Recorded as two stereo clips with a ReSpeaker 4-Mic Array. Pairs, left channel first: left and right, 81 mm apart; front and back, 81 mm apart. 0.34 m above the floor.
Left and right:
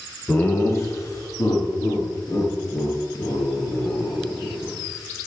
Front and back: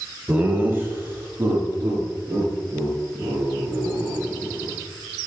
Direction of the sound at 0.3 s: 135° left.